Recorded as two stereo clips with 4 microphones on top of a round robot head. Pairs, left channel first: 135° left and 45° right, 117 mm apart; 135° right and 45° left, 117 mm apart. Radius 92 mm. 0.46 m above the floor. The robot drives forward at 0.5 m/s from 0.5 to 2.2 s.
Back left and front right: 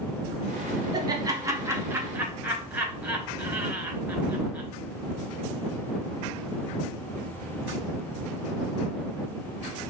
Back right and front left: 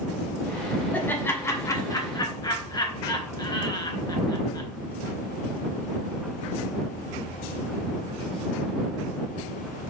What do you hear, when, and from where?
0.9 s laughter: 70° right, 1.3 m; by 4.7 s 110° right, 1.3 m